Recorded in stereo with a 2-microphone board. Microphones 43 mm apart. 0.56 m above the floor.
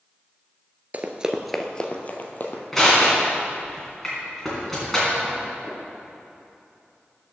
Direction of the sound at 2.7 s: 10° left (ahead or behind).